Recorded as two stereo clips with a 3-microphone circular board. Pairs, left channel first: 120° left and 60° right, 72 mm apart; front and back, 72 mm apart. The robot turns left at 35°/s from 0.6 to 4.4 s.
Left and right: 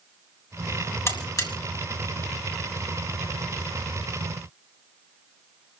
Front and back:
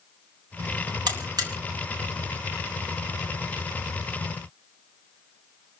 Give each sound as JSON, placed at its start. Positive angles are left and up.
{"t": 1.1, "sound": "a buzzer", "azimuth_deg": 170, "distance_m": 3.5}